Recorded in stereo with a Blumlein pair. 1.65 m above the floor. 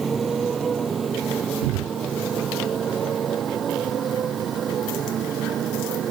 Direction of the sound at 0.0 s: 15° right.